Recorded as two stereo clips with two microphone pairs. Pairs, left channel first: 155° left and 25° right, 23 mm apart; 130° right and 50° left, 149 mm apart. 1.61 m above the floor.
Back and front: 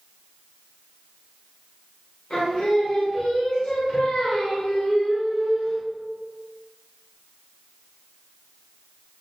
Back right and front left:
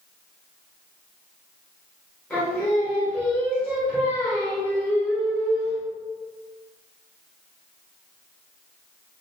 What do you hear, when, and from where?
2.3 s singing: 145° left, 1.5 m